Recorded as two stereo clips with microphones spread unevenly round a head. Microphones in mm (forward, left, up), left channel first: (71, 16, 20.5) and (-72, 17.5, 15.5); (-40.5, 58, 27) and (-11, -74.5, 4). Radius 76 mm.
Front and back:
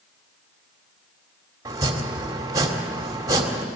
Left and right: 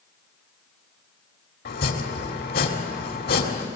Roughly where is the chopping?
Left.